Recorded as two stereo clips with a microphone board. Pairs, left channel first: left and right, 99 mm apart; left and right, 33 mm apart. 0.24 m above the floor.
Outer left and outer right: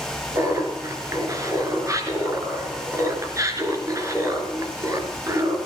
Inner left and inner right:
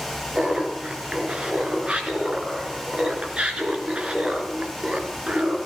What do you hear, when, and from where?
0.3 s laughter: 35° right (ahead or behind), 2.5 m